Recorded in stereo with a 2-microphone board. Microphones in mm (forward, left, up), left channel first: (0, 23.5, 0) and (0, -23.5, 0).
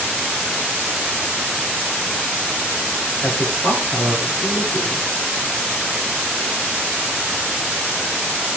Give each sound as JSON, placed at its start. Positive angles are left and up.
{"t": 3.2, "sound": "a man speaking", "side_deg": 25, "distance_m": 7.0}